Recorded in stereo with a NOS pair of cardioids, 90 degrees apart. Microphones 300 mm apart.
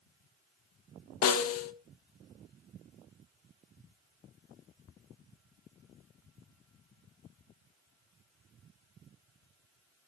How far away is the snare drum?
About 0.8 m.